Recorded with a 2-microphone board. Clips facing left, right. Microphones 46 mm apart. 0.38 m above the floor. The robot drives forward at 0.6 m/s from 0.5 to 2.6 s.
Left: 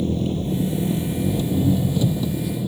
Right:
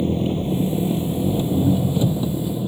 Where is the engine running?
25° right (ahead or behind); by 2.7 s 15° right (ahead or behind).